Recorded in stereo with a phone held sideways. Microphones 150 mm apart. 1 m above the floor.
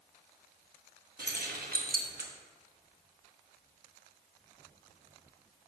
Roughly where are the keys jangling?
Right.